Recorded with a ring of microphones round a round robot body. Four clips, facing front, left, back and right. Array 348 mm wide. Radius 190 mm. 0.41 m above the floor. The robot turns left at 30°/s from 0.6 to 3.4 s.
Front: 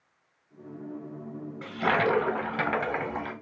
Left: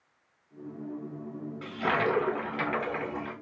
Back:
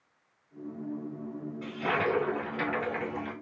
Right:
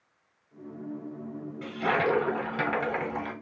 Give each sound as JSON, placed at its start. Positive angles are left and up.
{"t": 1.6, "sound": "a toilet flushing", "azimuth_deg": 15, "distance_m": 0.9}